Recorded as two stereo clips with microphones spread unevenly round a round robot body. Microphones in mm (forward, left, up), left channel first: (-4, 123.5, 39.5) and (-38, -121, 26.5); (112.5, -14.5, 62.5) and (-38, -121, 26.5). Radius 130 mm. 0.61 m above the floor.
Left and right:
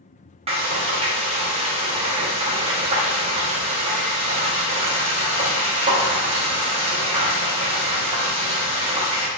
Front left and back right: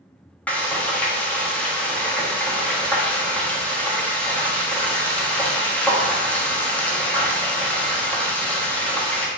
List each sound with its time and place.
0.5 s frying: 60° right, 1.0 m